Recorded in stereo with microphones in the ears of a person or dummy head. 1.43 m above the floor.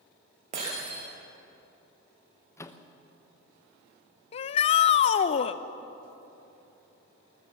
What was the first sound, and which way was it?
Breaking glass, 40° right (ahead or behind).